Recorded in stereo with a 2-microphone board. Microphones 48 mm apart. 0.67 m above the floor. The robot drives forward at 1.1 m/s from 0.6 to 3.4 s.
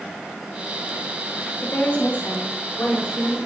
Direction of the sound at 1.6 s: 50° left (ahead or behind).